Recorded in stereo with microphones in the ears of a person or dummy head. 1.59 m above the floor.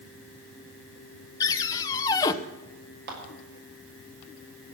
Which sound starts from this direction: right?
A clap, at 3.1 s.